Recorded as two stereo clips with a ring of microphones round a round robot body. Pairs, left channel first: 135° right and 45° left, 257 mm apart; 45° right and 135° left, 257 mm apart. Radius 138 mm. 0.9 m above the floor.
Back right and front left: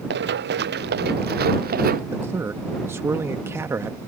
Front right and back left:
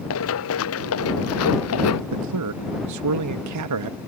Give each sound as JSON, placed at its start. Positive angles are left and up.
{"t": 0.1, "sound": "running footsteps", "azimuth_deg": -5}
{"t": 2.1, "sound": "a man speaking", "azimuth_deg": 125}